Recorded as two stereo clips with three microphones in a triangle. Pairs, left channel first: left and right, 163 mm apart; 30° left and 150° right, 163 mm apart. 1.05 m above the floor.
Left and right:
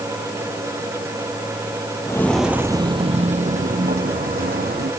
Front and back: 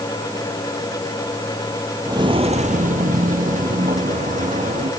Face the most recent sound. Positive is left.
turn(degrees=-110)